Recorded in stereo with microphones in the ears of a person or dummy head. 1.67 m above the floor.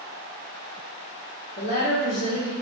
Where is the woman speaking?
65° left (ahead or behind), 1.7 m.